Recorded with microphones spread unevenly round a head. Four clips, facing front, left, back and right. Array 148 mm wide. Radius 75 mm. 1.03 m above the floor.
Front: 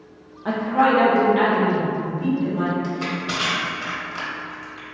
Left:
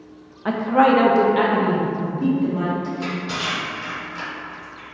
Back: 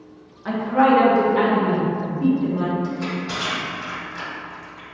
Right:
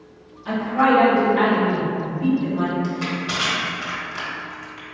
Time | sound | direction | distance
0.5 | a woman speaking | 60° left | 0.5 m
2.8 | crushing | 35° right | 1.2 m